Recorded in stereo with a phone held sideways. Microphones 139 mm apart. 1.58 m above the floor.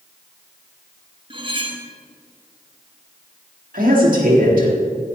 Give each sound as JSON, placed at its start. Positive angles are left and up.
{"t": 1.3, "sound": "cutlery clinking", "side_deg": -35, "distance_m": 1.2}
{"t": 3.7, "sound": "a woman speaking", "side_deg": -75, "distance_m": 3.5}